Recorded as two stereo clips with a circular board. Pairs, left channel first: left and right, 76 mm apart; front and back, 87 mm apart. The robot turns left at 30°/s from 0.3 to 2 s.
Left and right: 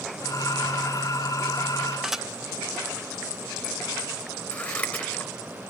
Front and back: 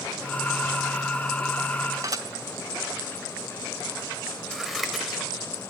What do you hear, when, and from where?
2.0 s dishes clattering: 175° right, 1.0 m
4.5 s scissors: 95° left, 1.3 m